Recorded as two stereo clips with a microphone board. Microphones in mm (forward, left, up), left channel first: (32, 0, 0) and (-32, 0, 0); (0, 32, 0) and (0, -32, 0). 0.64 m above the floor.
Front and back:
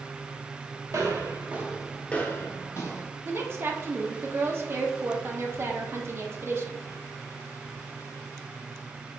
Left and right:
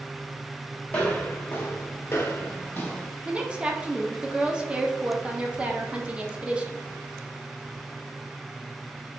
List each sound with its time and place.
0.9 s footsteps: 160° left, 1.1 m; by 3.1 s 25° left, 1.4 m
3.2 s a woman speaking: 160° right, 0.8 m